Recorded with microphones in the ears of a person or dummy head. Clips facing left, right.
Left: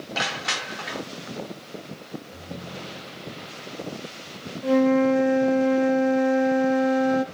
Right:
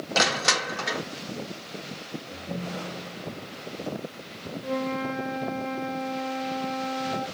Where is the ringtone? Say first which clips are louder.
Right 3 dB; 50° right (ahead or behind), 1.6 m.